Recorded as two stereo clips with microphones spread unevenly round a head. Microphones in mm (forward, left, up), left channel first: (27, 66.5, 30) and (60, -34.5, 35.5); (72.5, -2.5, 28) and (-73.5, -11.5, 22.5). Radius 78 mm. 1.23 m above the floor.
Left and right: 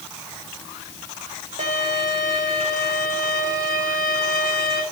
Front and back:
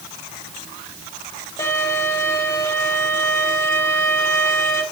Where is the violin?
65° right, 2.5 m.